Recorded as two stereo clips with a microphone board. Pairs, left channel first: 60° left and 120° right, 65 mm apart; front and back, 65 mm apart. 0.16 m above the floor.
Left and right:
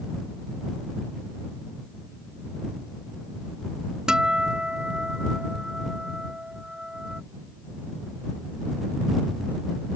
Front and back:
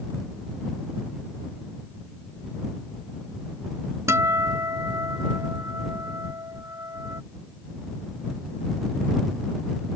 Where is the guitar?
165° left.